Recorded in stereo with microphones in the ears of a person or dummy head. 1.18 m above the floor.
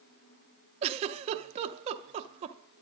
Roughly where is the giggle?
Right.